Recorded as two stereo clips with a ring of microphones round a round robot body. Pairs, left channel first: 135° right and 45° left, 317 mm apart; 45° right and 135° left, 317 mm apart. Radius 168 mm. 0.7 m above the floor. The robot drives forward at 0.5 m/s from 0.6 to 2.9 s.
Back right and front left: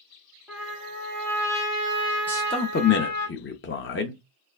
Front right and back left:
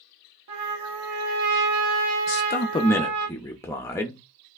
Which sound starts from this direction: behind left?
A trumpet, at 0.5 s.